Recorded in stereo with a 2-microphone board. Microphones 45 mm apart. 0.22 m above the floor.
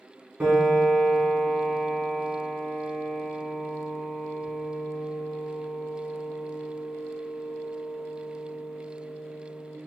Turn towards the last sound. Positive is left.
turn(degrees=-20)  # may be behind; listen again after turning